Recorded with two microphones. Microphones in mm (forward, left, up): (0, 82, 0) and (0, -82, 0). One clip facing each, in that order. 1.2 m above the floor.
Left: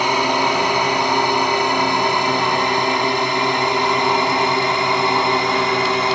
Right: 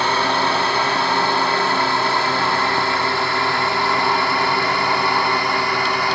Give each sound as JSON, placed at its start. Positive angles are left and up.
{"t": 0.0, "sound": "a drone", "side_deg": 15}